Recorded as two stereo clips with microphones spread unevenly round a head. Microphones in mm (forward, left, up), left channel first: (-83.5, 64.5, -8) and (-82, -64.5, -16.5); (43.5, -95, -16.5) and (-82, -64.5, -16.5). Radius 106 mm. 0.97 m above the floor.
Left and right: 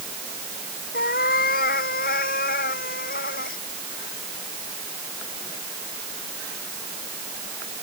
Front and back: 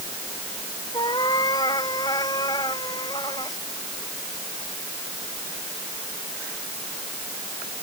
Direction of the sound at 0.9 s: 60° left.